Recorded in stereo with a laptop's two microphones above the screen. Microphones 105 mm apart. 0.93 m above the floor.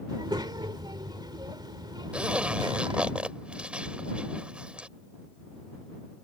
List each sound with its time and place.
0.1 s a child speaking: 45° right (ahead or behind)
2.1 s a zipper: 10° right (ahead or behind)